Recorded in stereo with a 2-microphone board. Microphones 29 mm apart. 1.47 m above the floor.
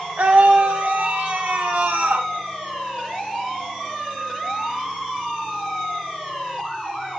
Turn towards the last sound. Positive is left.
turn(degrees=-70)  # may be behind; listen again after turning